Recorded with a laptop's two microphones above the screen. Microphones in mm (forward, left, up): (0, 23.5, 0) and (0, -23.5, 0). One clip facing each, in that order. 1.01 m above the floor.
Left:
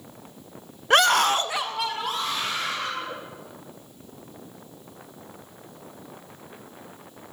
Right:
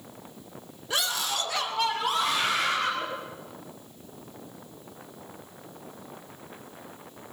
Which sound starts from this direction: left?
A scream, at 0.9 s.